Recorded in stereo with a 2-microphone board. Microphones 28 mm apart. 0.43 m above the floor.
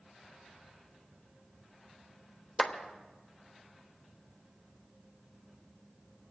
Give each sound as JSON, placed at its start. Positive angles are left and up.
{"t": 2.6, "sound": "a clap", "side_deg": 25, "distance_m": 1.1}